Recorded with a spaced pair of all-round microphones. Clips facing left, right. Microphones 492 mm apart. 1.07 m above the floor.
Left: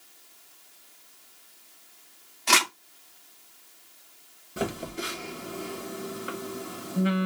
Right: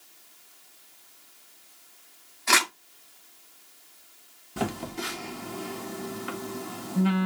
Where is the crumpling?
50° left (ahead or behind), 1.3 m.